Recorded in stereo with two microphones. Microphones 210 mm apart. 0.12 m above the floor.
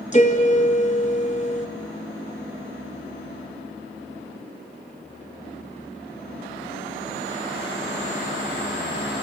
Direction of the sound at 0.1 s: 35° left (ahead or behind).